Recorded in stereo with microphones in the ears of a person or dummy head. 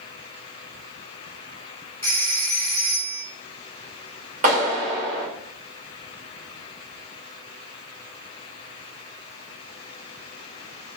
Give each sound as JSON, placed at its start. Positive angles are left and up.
{"t": 2.0, "sound": "a phone ringing", "side_deg": 15, "distance_m": 0.7}
{"t": 4.4, "sound": "a clap", "side_deg": -40, "distance_m": 1.5}